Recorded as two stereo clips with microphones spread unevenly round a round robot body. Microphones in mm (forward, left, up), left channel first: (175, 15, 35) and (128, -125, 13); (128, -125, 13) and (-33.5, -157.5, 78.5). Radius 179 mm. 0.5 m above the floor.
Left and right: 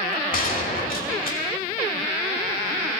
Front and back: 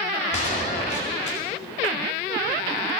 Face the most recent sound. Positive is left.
turn(degrees=50)